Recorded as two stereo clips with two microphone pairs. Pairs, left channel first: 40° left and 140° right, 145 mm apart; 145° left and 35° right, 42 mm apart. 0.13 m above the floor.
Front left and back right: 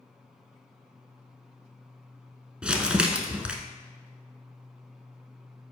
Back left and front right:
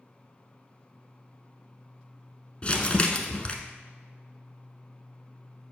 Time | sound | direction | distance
2.6 | crumpling | 145° left | 0.7 m